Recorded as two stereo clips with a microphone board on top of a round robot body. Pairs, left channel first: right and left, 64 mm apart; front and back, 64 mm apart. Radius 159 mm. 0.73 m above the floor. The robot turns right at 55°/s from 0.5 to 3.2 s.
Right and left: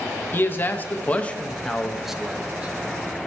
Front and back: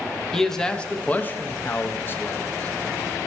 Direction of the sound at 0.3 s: 80° right.